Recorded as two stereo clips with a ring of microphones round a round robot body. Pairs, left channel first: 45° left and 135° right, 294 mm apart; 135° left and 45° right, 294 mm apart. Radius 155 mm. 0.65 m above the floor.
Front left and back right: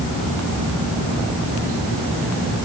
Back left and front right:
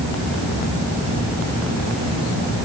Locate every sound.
Only background noise.